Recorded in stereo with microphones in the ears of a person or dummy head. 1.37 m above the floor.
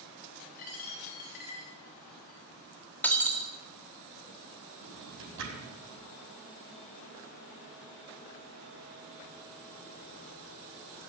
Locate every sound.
0.6 s a dropped coin: 35° left (ahead or behind), 1.7 m
3.0 s breaking glass: 10° left (ahead or behind), 1.8 m
4.8 s a drawer: 85° right, 5.5 m